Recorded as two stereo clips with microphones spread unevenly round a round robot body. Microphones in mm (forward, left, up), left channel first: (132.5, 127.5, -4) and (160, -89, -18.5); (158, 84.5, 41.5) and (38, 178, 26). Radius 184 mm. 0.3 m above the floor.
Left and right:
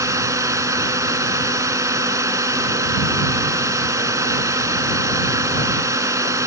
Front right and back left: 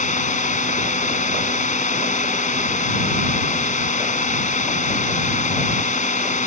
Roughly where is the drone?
Ahead.